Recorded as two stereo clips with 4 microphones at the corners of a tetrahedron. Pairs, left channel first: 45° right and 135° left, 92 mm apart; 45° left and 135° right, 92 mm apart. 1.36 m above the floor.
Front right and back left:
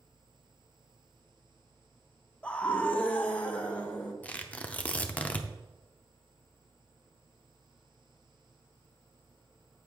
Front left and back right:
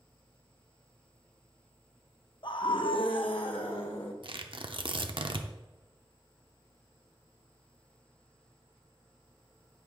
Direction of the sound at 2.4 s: 30° left.